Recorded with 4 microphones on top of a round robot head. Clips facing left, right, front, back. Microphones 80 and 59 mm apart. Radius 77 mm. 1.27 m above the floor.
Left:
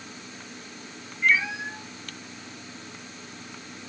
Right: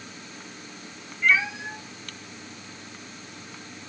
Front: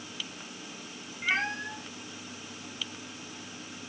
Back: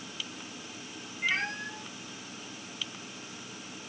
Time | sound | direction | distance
1.2 | a cat meowing | 40° right | 1.5 m